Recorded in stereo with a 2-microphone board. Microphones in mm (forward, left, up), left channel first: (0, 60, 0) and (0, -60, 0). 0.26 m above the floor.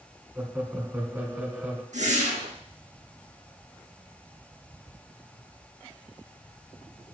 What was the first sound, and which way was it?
Laughter, 15° right (ahead or behind).